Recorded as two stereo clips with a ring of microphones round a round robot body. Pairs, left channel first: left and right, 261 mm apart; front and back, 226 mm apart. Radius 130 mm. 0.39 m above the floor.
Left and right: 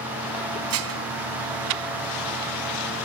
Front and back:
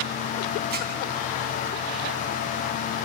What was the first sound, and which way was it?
Dishes clattering, 125° right.